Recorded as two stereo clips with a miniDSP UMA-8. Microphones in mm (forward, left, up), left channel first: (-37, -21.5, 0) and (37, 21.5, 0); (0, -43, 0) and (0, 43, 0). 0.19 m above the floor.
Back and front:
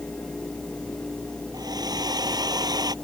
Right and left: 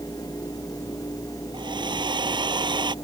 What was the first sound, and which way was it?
A hair dryer, 65° left.